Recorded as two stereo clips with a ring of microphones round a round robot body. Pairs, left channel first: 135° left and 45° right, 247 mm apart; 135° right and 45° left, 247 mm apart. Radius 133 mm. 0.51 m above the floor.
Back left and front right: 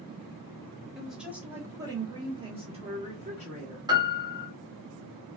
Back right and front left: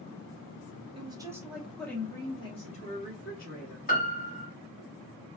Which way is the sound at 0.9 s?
45° left.